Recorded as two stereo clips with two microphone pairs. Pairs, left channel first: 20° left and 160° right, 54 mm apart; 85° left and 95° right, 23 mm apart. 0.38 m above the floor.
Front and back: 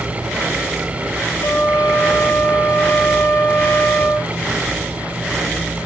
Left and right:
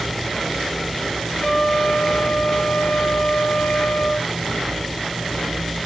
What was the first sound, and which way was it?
A trumpet, 45° left.